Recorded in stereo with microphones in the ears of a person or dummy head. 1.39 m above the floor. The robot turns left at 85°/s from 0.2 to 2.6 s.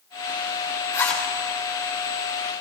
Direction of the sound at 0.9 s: 20° left (ahead or behind).